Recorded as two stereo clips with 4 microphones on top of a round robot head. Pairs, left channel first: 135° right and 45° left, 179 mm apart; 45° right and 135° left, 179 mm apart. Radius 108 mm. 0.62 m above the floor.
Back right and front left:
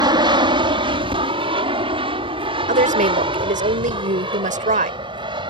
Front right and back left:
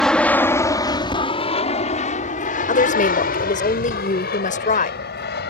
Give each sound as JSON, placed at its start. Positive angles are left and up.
{"t": 0.0, "sound": "an aircraft", "azimuth_deg": 40}
{"t": 2.7, "sound": "a woman speaking", "azimuth_deg": 0}